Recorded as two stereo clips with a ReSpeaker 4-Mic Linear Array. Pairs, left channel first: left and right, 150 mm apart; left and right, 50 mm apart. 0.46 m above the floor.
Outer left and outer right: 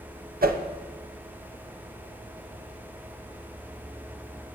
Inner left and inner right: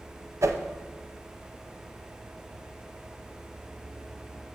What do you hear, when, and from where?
0.4 s a whoosh: 75° right (ahead or behind), 0.5 m